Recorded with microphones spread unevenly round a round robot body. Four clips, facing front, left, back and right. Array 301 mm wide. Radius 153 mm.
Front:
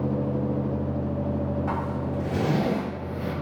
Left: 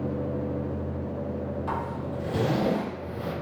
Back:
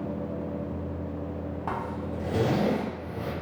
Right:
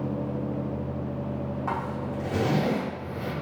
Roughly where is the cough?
I don't hear a cough.